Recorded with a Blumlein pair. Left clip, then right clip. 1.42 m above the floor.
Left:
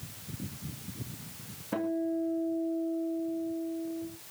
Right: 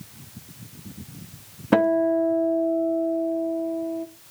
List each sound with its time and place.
1.7 s a guitar: 55° right, 1.0 m